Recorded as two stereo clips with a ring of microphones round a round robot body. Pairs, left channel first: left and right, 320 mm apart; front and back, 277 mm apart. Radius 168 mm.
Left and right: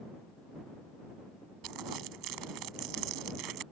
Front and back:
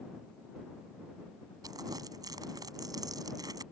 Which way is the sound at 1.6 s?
100° right.